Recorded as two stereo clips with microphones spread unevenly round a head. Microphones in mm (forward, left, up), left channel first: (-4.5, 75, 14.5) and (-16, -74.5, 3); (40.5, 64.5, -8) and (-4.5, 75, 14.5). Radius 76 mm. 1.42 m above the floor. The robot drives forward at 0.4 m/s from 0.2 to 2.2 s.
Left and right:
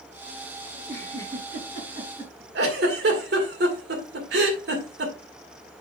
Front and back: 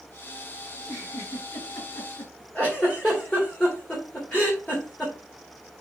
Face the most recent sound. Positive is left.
turn(degrees=-105)